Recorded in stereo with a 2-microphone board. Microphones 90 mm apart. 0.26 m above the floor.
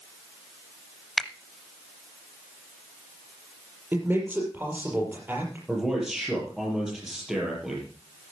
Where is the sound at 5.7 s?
5° right (ahead or behind), 6 m.